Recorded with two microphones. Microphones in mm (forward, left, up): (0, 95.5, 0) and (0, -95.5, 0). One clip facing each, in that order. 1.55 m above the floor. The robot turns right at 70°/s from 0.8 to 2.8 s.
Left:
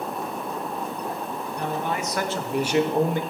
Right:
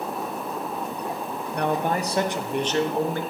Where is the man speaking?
70° right, 0.8 m; by 3.2 s 20° left, 0.8 m.